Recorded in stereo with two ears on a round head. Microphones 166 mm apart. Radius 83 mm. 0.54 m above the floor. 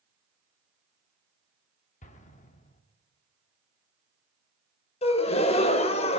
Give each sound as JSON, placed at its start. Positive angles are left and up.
{"t": 2.0, "sound": "an explosion", "side_deg": 40, "distance_m": 0.8}
{"t": 5.0, "sound": "a gasp", "side_deg": 30, "distance_m": 0.6}